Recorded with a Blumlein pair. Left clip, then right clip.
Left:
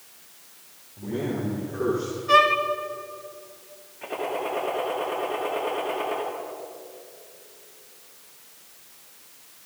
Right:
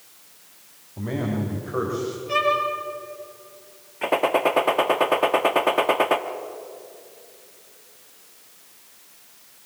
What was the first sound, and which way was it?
A man speaking, 55° right.